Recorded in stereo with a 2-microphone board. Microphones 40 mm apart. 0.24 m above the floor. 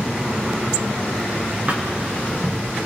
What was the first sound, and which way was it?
A thud, 35° right (ahead or behind).